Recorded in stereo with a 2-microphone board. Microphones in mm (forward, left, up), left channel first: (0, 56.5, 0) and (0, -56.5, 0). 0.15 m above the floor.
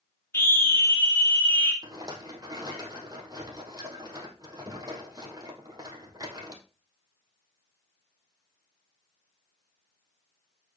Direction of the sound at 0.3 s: 20° left (ahead or behind).